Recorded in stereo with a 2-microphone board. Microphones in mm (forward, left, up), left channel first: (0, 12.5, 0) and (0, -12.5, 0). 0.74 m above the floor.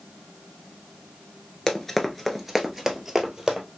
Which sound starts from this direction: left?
Running footsteps, at 1.7 s.